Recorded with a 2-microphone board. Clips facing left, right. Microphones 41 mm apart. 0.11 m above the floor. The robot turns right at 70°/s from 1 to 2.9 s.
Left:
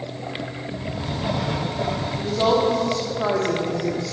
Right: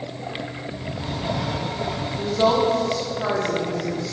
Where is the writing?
15° left, 3.5 m; by 2.1 s 90° left, 3.5 m.